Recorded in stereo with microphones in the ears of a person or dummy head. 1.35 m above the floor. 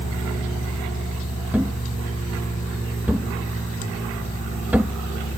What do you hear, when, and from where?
0.0 s a fan: 80° left
1.5 s a thud: 5° right (ahead or behind)